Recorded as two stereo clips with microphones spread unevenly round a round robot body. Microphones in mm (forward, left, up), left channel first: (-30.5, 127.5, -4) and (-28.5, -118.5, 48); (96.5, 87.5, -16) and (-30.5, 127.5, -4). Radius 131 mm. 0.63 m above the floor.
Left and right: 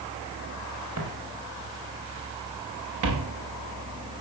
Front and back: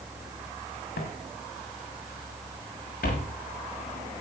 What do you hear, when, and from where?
1.0 s footsteps: 50° right, 6 m; by 3.3 s 70° right, 5.5 m